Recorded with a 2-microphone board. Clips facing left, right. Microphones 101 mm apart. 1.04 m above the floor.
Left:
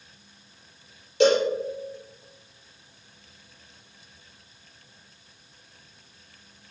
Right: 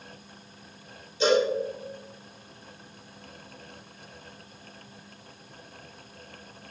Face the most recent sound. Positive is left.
turn(degrees=70)  # may be behind; listen again after turning